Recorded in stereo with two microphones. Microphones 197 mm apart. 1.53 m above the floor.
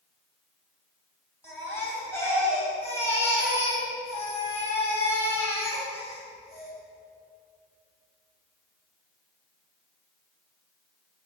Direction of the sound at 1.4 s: 15° left (ahead or behind).